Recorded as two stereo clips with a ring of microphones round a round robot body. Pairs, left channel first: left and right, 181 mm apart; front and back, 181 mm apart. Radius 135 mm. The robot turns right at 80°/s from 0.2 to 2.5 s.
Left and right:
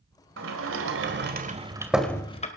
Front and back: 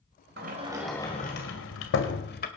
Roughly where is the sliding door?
Behind right.